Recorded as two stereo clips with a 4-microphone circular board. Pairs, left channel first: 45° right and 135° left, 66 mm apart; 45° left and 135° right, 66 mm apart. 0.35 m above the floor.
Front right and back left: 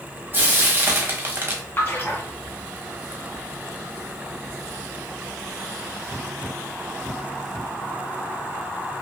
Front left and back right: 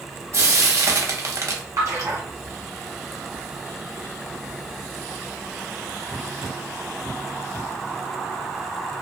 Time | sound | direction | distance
0.3 | frying | 175° right | 0.6 m
1.8 | a splash | 100° right | 1.7 m